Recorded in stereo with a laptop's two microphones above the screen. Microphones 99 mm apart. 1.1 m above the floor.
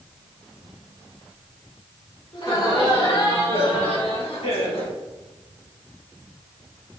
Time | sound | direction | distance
2.3 | laughter | 60° left (ahead or behind) | 3.5 m